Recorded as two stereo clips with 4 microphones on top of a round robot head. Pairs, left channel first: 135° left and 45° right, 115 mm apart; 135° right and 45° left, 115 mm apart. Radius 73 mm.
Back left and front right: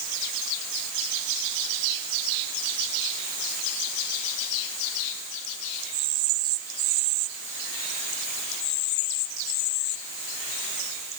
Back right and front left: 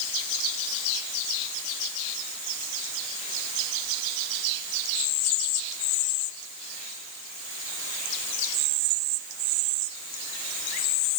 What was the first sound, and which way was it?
Only background noise.